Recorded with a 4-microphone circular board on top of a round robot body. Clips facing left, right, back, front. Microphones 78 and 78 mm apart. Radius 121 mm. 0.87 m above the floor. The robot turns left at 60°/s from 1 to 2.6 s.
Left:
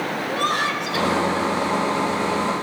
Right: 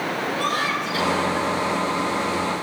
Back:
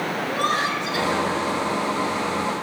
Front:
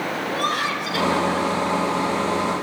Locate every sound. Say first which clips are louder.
0.2 s laughter: left 2 dB, back 1 dB; 115° left, 9 m; by 1.5 s 85° left, 9 m